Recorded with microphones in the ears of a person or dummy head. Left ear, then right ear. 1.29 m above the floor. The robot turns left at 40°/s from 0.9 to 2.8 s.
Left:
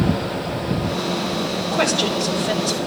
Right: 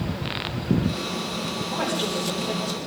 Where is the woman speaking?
75° left, 4.5 m; by 2.8 s 30° left, 4.5 m.